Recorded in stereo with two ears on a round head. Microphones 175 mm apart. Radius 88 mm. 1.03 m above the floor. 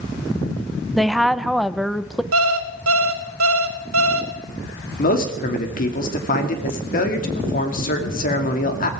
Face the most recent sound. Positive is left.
turn(degrees=45)  # may be behind; listen again after turning